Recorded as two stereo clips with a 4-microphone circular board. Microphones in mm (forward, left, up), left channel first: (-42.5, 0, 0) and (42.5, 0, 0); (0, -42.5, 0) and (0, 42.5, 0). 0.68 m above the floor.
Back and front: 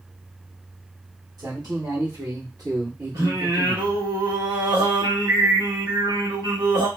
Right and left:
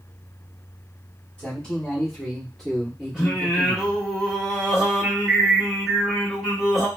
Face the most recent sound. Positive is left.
turn(degrees=0)